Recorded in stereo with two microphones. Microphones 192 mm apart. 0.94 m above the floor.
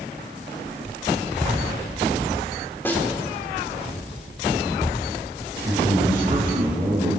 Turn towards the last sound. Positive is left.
turn(degrees=-20)  # may be behind; listen again after turning